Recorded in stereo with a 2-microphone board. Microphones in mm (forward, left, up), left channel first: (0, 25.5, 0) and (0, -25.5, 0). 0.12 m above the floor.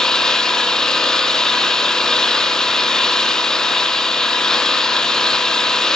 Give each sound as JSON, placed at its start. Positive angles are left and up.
{"t": 0.0, "sound": "an engine running", "side_deg": 10, "distance_m": 1.8}